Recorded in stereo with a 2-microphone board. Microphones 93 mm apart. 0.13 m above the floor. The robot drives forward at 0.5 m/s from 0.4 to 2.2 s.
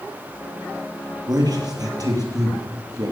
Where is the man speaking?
45° right (ahead or behind), 3 m; by 3.1 s 40° right (ahead or behind), 3 m.